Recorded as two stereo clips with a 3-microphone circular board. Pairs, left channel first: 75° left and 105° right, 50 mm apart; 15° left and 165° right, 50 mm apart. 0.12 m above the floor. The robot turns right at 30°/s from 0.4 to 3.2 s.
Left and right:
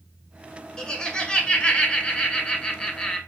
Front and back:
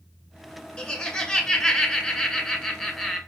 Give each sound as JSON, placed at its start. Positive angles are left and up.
{"t": 0.8, "sound": "laughter", "azimuth_deg": 45, "distance_m": 1.1}